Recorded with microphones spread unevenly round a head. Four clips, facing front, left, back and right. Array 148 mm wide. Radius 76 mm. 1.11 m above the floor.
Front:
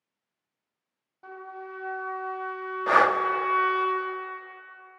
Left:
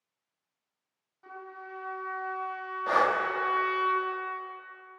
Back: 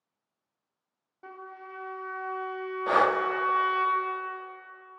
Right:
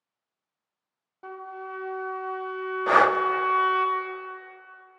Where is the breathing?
90° right, 0.6 m.